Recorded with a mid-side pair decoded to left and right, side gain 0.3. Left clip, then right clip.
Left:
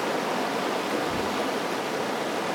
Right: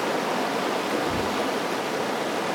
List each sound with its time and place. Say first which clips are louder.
0.0 s running water: right 2 dB; 15° right, 0.8 m
1.1 s a thud: right 2 dB; 60° right, 1.7 m